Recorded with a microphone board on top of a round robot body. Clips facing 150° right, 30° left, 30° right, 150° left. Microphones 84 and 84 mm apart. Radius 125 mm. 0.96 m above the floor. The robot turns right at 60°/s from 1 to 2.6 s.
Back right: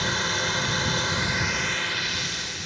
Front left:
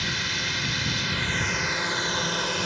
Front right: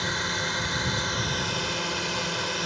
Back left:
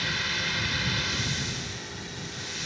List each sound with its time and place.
0.0 s a drone: 95° right; by 2.7 s 5° left